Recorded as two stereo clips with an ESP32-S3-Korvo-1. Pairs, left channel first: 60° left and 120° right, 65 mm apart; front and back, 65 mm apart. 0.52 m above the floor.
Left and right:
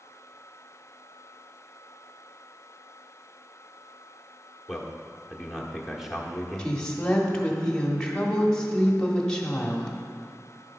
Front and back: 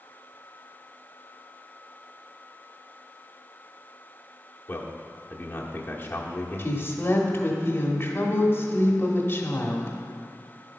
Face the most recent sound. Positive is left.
turn(degrees=-10)